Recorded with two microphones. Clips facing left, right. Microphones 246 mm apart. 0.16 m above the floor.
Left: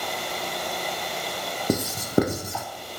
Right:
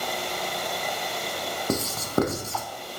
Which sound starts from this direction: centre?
Writing, at 1.7 s.